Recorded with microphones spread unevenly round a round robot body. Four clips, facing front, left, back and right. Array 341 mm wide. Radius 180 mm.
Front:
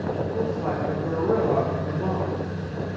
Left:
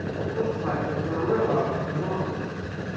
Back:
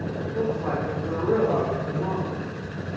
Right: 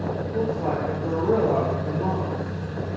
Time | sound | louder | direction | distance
0.3 | a woman speaking | right 2 dB, back 4 dB | 45° right | 1.7 m